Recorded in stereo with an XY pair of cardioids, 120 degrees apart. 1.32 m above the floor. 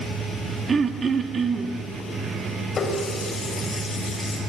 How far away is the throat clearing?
About 1.5 m.